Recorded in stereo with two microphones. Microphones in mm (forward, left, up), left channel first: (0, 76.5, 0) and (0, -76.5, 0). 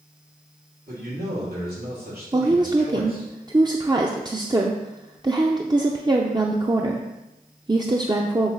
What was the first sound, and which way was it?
A man speaking, 80° right.